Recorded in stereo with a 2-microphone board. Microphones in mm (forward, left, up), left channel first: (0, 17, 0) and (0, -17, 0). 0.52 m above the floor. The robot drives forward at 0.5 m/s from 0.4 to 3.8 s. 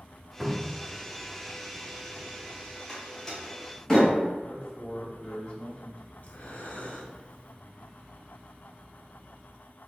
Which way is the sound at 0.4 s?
5° right (ahead or behind).